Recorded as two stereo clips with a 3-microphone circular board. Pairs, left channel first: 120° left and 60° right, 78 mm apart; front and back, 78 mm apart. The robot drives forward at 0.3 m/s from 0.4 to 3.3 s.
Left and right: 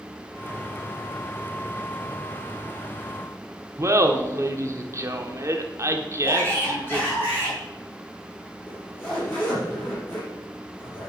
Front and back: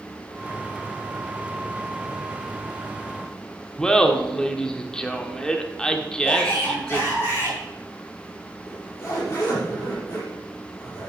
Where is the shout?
60° left, 4.5 m.